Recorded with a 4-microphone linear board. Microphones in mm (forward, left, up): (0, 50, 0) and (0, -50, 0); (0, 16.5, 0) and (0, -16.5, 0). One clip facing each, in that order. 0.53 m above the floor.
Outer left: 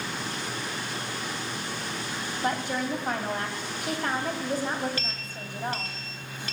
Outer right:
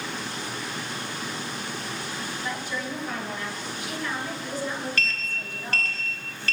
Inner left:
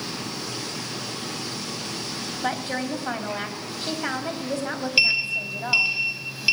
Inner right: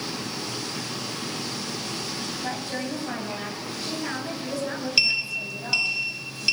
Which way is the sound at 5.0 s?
15° left (ahead or behind).